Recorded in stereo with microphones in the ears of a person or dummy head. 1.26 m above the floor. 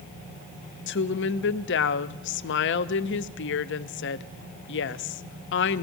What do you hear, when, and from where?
0.9 s a woman speaking: 50° left (ahead or behind), 0.5 m